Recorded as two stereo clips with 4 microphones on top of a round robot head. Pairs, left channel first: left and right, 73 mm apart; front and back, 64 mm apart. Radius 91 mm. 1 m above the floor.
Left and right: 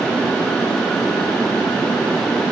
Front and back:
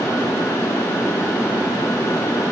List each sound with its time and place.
Only background noise.